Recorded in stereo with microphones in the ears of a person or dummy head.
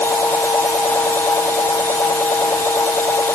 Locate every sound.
0.0 s a machine running: 10° left (ahead or behind)